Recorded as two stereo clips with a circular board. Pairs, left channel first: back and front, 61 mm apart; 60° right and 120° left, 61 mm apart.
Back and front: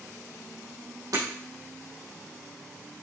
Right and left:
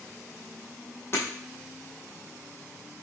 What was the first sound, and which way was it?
Breaking glass, 10° right.